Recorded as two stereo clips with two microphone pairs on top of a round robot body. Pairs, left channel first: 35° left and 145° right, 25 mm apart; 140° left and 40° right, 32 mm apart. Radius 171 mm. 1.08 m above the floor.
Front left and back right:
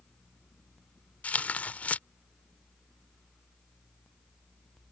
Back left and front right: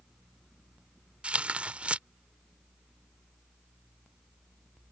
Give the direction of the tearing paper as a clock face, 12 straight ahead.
12 o'clock.